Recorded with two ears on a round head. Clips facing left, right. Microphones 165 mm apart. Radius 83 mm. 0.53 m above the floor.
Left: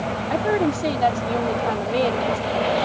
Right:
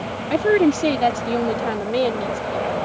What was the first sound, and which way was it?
A woman speaking, 30° right (ahead or behind).